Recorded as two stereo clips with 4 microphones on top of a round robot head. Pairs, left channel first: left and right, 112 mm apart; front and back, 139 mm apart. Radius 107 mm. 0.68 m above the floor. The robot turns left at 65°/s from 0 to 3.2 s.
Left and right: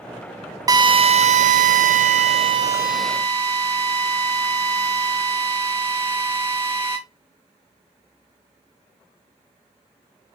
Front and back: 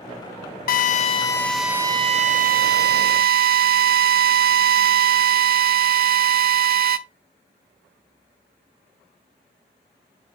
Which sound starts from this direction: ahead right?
A drill, at 0.7 s.